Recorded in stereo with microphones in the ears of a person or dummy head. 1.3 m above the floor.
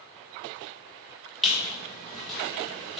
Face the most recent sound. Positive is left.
turn(degrees=5)  # may be behind; listen again after turning